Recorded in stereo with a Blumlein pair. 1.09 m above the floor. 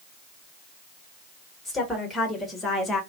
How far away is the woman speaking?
About 1.6 m.